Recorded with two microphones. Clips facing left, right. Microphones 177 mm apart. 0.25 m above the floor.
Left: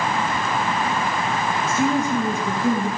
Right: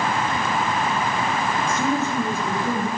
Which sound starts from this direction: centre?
A woman speaking, at 1.7 s.